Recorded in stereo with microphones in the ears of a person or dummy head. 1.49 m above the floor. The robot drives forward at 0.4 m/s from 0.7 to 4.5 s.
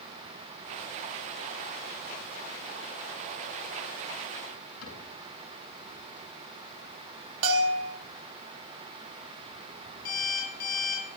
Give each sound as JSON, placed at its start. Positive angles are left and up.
{"t": 4.8, "sound": "a cupboard door", "side_deg": 85, "distance_m": 9.0}
{"t": 7.4, "sound": "a bell", "side_deg": -85, "distance_m": 3.0}
{"t": 10.1, "sound": "an alarm clock", "side_deg": 55, "distance_m": 9.0}